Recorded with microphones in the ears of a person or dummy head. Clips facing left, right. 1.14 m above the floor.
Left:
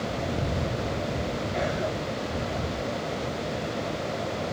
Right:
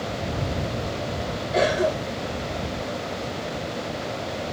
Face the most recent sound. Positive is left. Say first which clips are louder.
# right 10 dB
turn(degrees=-80)